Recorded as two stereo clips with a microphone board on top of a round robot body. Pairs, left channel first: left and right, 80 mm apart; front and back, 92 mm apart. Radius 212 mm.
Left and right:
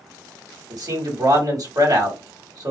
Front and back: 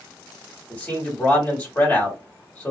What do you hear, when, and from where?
0.7 s a man speaking: 70° right, 1.9 m